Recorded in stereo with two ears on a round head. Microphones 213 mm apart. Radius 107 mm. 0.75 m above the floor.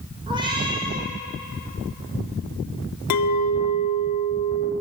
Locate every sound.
0.3 s a cat meowing: 20° right (ahead or behind), 3 m
3.1 s a clink: 80° left, 1.2 m